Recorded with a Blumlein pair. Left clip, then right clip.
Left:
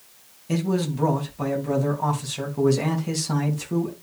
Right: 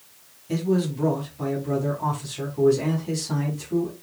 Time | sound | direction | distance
0.5 | a man speaking | 20° left | 3 m